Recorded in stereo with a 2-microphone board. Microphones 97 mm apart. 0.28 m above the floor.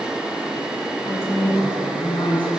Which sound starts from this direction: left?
A woman speaking, at 1.1 s.